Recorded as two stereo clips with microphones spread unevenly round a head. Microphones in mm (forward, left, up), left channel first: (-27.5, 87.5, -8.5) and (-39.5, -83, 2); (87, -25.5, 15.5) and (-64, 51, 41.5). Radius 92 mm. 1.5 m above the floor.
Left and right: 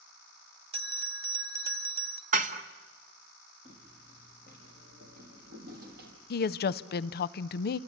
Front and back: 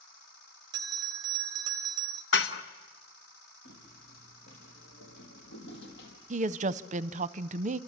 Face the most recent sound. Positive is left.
turn(degrees=115)